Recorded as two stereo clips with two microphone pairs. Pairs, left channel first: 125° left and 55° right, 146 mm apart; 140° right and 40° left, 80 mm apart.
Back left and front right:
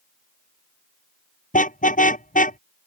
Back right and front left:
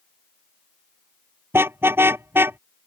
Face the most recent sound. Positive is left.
turn(degrees=100)